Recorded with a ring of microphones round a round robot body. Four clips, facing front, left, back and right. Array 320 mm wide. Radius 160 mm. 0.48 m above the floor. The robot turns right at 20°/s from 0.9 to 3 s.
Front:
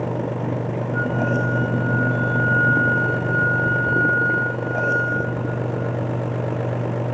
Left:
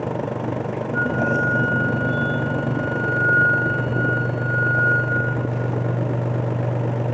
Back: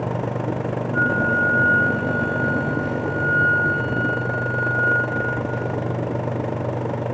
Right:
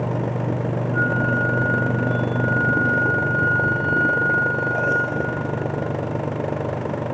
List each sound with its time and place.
0.9 s a flute: 95° left, 0.9 m; by 5.3 s 140° left, 0.9 m